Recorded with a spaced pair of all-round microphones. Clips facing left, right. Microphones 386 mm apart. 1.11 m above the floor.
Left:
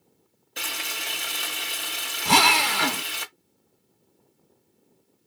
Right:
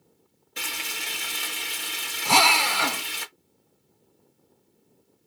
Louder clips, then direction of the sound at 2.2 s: Left 2 dB; 30° left (ahead or behind).